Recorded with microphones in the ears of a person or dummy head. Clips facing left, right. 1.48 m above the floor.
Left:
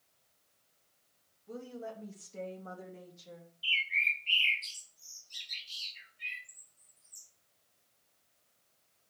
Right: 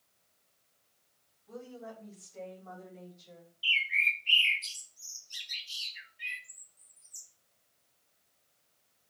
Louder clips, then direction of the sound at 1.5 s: Left 2 dB; 35° left (ahead or behind).